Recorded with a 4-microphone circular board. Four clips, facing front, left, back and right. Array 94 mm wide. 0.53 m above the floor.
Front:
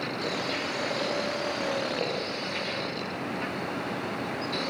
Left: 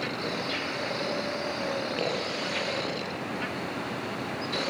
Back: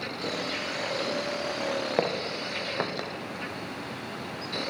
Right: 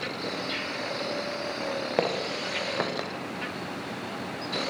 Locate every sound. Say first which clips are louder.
2.0 s footsteps: right 2 dB, back 2 dB; 140° right, 6 m; by 3.1 s 135° right, 5 m